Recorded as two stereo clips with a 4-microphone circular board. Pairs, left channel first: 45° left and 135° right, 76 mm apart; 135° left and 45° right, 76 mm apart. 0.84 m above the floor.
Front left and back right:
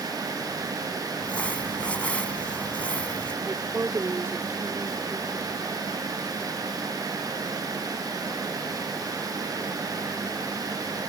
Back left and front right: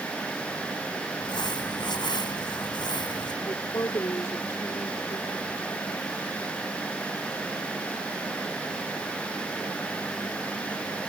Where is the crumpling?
120° left.